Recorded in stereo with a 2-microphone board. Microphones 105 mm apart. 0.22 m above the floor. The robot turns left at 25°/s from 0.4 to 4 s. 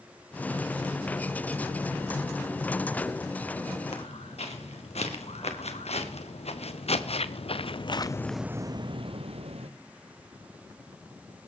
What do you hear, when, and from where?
3.9 s footsteps: 85° left, 5 m; by 9.7 s 70° right (ahead or behind), 1.6 m